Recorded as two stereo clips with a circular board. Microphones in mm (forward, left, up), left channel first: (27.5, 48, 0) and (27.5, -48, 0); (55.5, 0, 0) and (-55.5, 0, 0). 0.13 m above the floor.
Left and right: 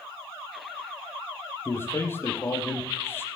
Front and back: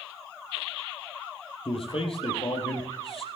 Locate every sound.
1.6 s a man speaking: 25° left, 3.5 m